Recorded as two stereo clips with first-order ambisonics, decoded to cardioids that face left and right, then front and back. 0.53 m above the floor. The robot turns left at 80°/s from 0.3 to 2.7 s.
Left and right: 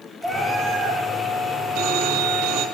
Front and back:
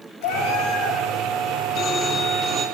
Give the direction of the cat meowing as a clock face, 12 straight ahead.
12 o'clock.